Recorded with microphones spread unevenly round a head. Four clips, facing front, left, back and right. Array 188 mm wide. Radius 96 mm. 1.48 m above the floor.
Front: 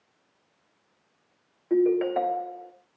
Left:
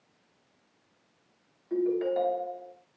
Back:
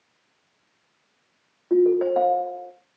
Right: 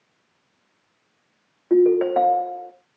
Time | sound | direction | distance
1.7 | a ringtone | 100° right | 1.5 m